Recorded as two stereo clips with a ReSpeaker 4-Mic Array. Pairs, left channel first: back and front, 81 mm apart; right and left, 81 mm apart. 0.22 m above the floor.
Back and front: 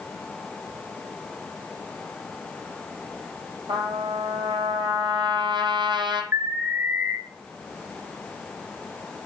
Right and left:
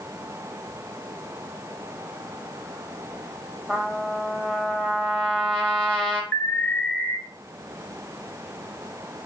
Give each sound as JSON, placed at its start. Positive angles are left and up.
{"t": 3.7, "sound": "a trumpet", "azimuth_deg": -5, "distance_m": 2.5}
{"t": 6.3, "sound": "an alarm", "azimuth_deg": -40, "distance_m": 1.4}